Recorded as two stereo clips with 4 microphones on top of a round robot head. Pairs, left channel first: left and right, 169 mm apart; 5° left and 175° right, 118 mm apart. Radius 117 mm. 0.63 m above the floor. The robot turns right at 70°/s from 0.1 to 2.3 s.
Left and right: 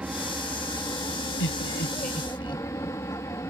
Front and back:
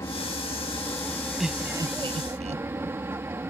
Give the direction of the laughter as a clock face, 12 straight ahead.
9 o'clock.